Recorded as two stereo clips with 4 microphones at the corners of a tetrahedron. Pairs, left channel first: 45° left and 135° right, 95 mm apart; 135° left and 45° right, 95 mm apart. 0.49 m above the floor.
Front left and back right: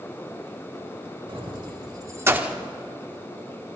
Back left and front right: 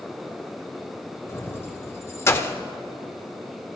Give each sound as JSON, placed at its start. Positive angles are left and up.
{"t": 1.3, "sound": "keys jangling", "azimuth_deg": -165, "distance_m": 1.5}